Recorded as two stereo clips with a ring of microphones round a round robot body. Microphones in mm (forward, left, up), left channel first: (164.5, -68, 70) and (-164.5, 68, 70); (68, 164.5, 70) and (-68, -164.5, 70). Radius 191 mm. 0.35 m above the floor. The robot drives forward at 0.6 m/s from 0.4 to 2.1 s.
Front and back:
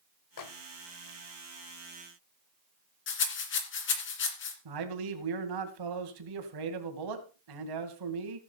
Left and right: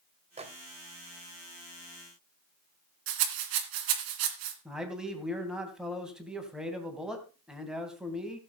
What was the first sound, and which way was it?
A microwave, 40° right.